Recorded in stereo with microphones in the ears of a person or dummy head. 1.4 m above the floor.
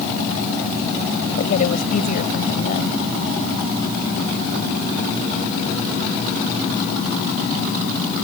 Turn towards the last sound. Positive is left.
turn(degrees=50)  # may be behind; listen again after turning